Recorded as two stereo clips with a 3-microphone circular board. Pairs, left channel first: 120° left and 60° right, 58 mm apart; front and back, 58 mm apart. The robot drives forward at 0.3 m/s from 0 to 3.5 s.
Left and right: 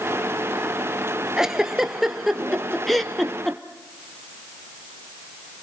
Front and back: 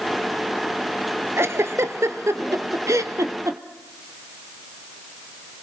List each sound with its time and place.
1.4 s a giggle: 140° right, 1.1 m; by 3.6 s 155° right, 1.6 m